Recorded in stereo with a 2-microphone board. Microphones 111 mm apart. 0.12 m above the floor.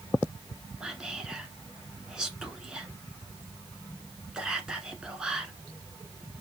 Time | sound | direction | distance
0.8 | whispering | 5° right (ahead or behind) | 1.2 m